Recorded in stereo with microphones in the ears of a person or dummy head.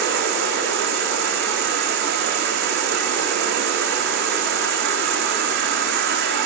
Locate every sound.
0.0 s an insect: 55° right (ahead or behind), 1.8 m